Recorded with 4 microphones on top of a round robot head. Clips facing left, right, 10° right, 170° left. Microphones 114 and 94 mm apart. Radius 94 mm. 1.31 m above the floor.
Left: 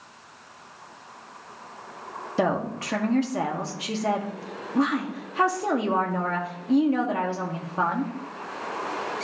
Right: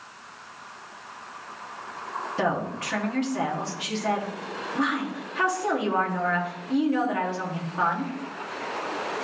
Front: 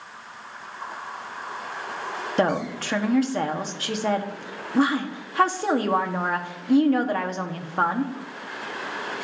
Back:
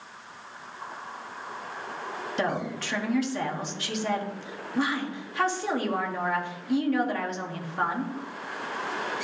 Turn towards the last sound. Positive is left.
turn(degrees=35)